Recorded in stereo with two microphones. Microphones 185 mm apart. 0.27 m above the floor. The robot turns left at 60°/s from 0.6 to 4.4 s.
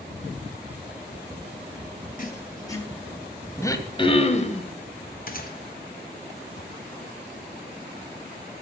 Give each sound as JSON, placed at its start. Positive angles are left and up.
{"t": 2.2, "sound": "writing", "azimuth_deg": 50, "distance_m": 1.2}
{"t": 3.6, "sound": "throat clearing", "azimuth_deg": 155, "distance_m": 0.8}
{"t": 5.3, "sound": "a gunshot", "side_deg": 50, "distance_m": 1.2}